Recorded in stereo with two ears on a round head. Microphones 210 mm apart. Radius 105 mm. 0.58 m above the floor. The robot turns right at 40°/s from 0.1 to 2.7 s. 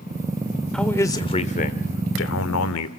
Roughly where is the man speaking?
Ahead.